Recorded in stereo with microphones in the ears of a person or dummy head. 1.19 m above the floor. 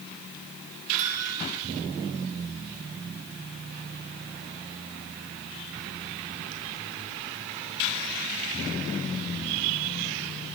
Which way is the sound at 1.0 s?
40° right (ahead or behind).